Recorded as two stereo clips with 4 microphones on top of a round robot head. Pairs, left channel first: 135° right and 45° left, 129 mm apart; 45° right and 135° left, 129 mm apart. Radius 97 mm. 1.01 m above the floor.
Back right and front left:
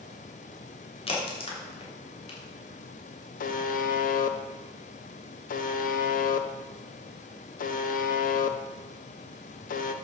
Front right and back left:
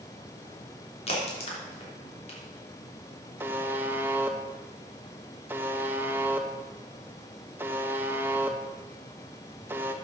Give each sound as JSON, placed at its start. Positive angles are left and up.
{"t": 1.1, "sound": "a crack", "azimuth_deg": -90, "distance_m": 3.5}
{"t": 3.4, "sound": "a buzzer", "azimuth_deg": -150, "distance_m": 0.7}